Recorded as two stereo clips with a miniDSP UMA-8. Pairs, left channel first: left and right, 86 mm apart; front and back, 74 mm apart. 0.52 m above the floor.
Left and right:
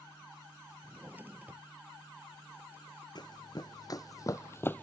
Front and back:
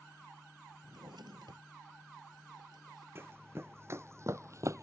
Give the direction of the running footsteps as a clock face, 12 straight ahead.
8 o'clock.